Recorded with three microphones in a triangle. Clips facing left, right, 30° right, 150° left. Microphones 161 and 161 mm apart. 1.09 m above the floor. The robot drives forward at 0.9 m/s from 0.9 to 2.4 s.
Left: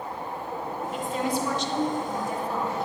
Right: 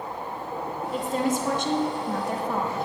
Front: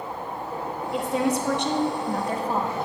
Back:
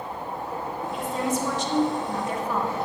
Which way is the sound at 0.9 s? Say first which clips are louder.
Right 3 dB, front 4 dB; 40° right.